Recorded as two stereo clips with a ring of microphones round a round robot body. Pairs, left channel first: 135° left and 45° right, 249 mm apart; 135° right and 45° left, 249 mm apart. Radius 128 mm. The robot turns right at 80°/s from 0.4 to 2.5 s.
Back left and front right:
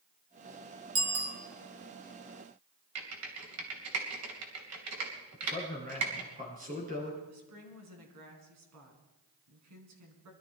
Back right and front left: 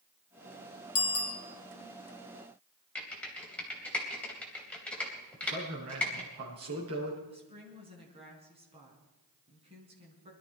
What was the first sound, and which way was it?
A bicycle bell, 105° right.